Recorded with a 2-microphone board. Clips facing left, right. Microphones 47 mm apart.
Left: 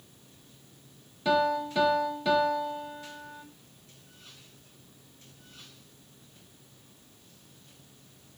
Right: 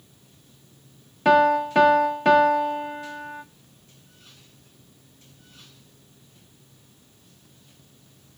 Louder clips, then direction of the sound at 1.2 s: Right 8 dB; 50° right (ahead or behind).